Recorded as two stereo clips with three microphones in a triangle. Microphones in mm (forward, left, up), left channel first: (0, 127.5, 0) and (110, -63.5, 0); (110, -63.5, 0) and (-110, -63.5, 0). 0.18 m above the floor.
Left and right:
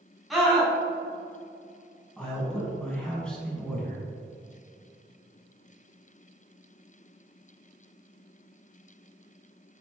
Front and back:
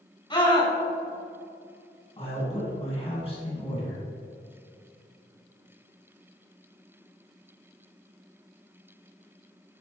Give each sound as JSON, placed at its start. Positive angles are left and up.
{"t": 0.3, "sound": "a scream", "azimuth_deg": 30, "distance_m": 1.7}
{"t": 2.2, "sound": "a man speaking", "azimuth_deg": 35, "distance_m": 2.0}